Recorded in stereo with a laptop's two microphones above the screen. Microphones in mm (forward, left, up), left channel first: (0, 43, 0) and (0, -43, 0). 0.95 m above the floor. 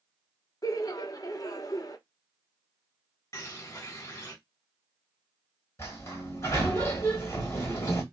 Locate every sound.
0.6 s laughter: 45° left (ahead or behind), 0.7 m
3.3 s a bird: 35° left (ahead or behind), 0.9 m
5.8 s a sliding door: 30° left (ahead or behind), 1.5 m